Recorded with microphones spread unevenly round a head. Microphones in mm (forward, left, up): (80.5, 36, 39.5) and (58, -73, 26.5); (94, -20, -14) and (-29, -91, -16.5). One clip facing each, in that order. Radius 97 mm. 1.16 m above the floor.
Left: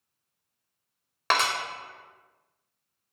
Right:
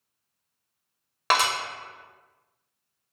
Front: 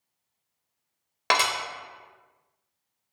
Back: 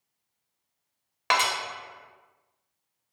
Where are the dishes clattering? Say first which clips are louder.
Right 2 dB, even; 15° right, 0.6 m.